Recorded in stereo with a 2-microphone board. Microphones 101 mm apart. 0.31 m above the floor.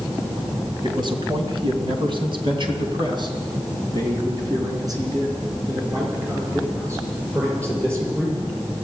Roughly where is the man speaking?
Right.